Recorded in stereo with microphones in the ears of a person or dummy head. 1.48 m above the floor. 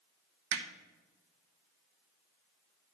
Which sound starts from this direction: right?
Hammering, at 0.5 s.